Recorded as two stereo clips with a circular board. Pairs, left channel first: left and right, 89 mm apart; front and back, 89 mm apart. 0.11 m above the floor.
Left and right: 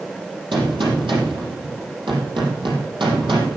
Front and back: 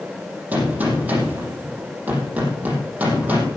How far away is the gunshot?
About 4.5 m.